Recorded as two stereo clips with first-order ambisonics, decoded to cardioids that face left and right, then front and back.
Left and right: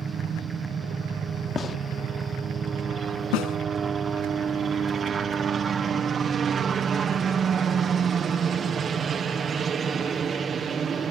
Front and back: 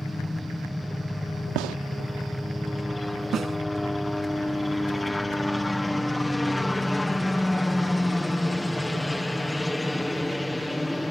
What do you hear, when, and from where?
0.0 s a helicopter: 80° right
1.6 s a gunshot: 160° left
3.3 s a snare drum: 115° left